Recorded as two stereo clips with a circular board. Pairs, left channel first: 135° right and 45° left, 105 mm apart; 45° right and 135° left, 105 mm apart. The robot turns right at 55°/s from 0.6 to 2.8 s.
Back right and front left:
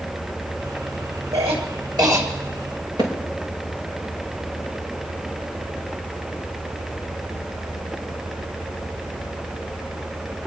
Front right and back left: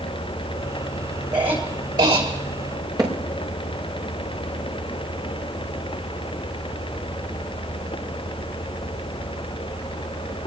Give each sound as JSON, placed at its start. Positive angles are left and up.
{"t": 1.3, "sound": "a cough", "azimuth_deg": 55, "distance_m": 6.5}
{"t": 3.0, "sound": "hammering", "azimuth_deg": 85, "distance_m": 5.5}